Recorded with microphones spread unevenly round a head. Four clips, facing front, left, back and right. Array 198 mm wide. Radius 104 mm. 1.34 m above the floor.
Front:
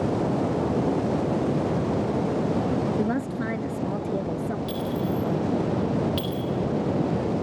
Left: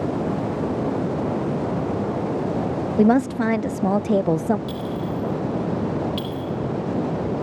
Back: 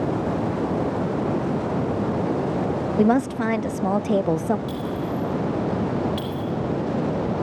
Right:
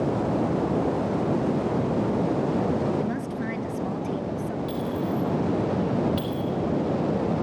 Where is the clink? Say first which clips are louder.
Even, even; 40° left, 8 m.